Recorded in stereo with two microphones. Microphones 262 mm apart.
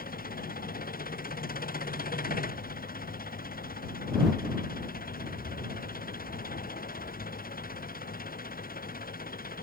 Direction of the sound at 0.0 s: 35° left (ahead or behind).